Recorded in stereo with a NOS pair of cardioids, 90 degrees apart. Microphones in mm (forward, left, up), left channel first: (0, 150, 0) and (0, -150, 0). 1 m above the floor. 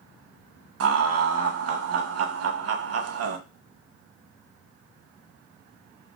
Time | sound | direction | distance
0.8 | laughter | 55° right | 0.8 m